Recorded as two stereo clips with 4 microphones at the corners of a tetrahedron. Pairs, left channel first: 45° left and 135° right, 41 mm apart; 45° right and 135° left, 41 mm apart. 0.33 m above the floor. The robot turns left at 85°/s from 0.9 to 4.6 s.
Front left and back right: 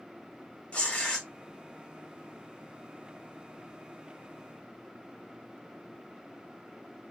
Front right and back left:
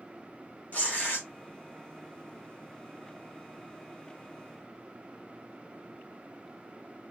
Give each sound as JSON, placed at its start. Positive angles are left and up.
{"t": 0.7, "sound": "tearing paper", "azimuth_deg": -5, "distance_m": 1.9}